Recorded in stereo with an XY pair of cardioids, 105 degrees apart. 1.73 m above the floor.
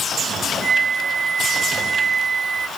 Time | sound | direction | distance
0.6 | a flute | 40° right | ?